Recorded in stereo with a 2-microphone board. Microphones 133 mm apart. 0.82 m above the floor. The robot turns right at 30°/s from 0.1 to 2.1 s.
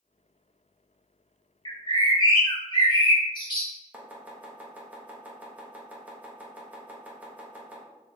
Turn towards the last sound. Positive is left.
turn(degrees=-10)  # may be behind; listen again after turning